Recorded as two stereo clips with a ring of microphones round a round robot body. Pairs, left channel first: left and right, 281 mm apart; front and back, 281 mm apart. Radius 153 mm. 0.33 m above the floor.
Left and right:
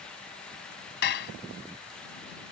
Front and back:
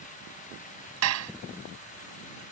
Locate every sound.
1.0 s dishes clattering: 145° left